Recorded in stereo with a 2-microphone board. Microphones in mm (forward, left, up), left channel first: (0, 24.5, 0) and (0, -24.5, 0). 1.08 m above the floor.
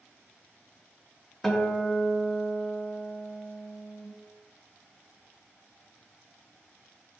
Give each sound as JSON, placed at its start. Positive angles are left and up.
{"t": 1.4, "sound": "a guitar", "side_deg": 5, "distance_m": 0.5}